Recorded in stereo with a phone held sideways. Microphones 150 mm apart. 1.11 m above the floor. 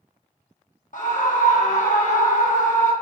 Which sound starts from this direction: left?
A scream, at 0.9 s.